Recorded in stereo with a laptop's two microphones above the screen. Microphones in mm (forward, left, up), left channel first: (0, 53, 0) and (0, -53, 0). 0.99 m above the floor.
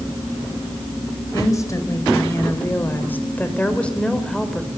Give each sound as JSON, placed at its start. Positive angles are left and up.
{"t": 1.3, "sound": "a woman speaking", "side_deg": 35, "distance_m": 5.0}